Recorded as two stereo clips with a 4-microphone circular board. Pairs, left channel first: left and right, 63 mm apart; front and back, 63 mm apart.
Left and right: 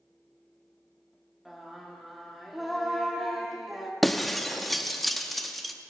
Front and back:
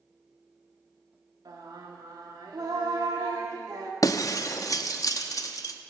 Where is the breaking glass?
Straight ahead, 0.8 m.